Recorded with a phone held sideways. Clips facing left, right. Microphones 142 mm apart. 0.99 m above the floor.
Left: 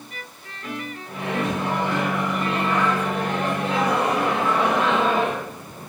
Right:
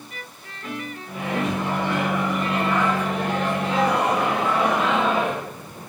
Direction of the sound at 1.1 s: 75° left (ahead or behind).